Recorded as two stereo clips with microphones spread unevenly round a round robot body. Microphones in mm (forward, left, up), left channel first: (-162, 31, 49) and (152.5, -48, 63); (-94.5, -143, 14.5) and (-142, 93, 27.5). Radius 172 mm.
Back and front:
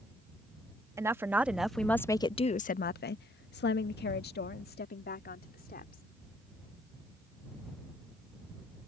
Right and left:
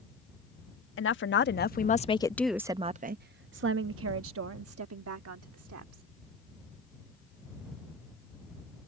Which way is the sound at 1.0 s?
95° right.